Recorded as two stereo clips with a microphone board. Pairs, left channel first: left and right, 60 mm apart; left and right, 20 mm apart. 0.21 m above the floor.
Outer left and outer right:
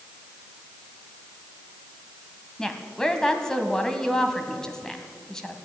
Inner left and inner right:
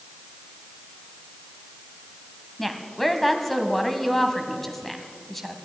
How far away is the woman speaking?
About 1.3 m.